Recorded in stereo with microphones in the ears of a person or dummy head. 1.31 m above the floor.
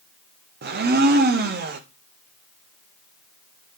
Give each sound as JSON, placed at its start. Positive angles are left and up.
{"t": 0.6, "sound": "a blender", "side_deg": -40, "distance_m": 0.8}